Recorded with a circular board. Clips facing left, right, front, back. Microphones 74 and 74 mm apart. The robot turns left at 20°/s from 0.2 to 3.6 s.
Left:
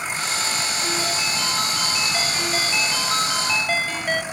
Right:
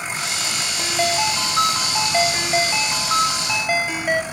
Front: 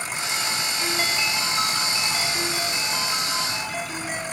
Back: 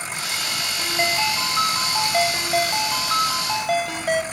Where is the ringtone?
110° right, 2.5 m; by 4.2 s 170° right, 2.5 m.